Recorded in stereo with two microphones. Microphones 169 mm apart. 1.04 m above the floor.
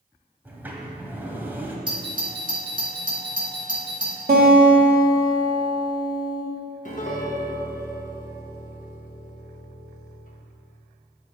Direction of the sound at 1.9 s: 30° right (ahead or behind).